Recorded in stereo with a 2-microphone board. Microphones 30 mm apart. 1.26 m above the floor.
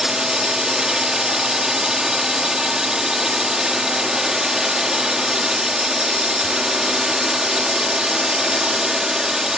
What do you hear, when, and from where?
0.0 s a drone: 20° right (ahead or behind)